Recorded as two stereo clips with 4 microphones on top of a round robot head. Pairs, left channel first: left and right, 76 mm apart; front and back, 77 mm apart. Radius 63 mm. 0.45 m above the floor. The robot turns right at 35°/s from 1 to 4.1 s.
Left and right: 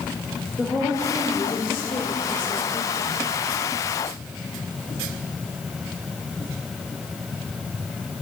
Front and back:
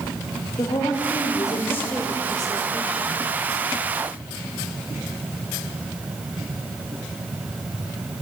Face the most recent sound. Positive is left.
turn(degrees=125)